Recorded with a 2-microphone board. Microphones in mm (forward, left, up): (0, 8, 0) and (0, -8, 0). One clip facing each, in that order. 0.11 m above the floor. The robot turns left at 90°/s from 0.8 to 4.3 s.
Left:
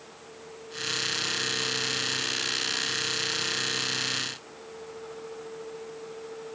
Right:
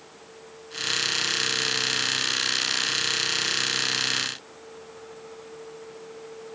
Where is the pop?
No pop in this recording.